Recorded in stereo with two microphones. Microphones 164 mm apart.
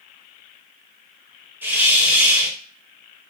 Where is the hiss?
15° right (ahead or behind), 1.0 m.